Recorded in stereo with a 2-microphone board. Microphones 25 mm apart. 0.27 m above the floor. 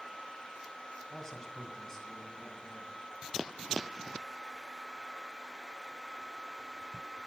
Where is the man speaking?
25° left (ahead or behind), 1.3 m; by 3.0 s 20° left (ahead or behind), 2.5 m.